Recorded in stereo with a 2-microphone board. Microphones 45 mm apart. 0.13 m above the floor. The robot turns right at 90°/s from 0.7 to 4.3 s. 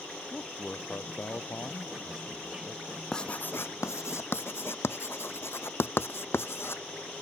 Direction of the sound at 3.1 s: 10° left (ahead or behind).